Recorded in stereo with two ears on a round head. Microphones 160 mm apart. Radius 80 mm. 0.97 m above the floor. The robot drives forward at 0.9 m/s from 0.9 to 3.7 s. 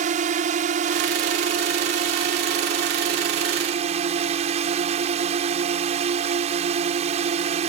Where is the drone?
45° right (ahead or behind); by 7.7 s 35° right (ahead or behind).